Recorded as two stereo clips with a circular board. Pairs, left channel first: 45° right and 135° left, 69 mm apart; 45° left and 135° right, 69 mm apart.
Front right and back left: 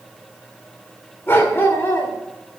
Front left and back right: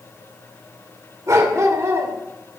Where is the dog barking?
100° right, 2.5 m.